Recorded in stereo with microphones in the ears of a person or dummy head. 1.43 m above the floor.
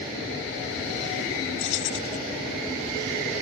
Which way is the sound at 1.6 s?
70° left (ahead or behind).